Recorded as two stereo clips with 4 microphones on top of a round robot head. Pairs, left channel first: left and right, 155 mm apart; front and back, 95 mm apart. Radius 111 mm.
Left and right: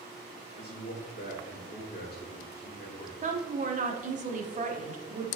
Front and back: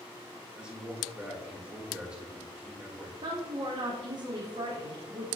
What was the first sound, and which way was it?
A man speaking, 100° left.